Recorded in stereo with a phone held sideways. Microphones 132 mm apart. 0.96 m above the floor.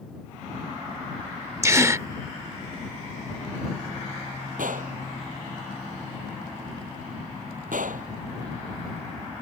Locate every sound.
1.6 s a gasp: 20° right (ahead or behind)
4.6 s a gunshot: 85° right